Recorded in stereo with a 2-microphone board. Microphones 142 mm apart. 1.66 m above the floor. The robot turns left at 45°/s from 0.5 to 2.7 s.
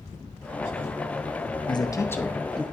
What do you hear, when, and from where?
1.7 s a man speaking: 40° left, 0.7 m; by 2.6 s 5° right, 0.7 m